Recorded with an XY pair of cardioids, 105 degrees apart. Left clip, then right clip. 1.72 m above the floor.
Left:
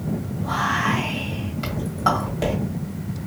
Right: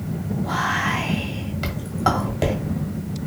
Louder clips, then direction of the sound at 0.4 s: Even; 25° right.